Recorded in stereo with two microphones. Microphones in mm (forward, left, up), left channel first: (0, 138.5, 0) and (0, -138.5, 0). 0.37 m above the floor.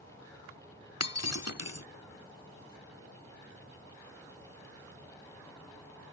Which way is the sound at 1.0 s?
65° left (ahead or behind).